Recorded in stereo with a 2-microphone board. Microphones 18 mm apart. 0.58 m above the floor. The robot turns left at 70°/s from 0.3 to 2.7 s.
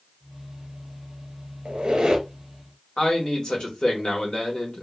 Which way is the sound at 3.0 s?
50° left (ahead or behind).